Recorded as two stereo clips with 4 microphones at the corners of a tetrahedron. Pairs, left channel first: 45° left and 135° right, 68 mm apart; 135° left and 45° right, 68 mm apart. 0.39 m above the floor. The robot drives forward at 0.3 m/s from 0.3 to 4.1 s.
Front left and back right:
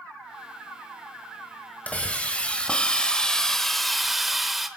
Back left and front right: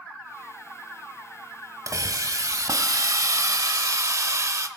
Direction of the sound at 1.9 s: 20° right.